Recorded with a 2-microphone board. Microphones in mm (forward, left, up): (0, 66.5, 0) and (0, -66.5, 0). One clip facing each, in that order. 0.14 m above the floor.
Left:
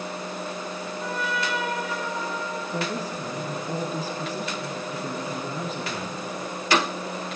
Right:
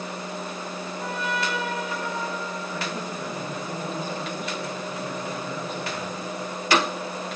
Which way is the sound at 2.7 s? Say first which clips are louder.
Left 2 dB; 35° left (ahead or behind).